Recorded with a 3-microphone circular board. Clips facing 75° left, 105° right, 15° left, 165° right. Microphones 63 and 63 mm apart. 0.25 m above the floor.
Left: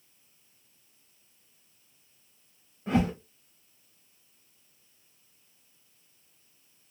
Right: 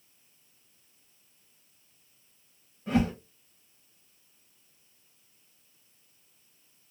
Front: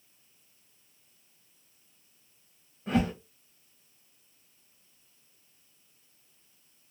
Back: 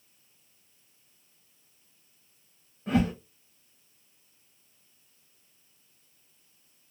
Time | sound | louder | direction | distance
2.9 | a whoosh | even, back 2 dB | 105° left | 1.6 m